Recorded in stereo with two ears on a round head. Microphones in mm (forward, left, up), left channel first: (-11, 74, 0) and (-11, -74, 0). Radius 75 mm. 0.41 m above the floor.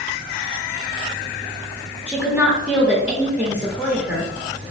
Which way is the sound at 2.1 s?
10° right (ahead or behind).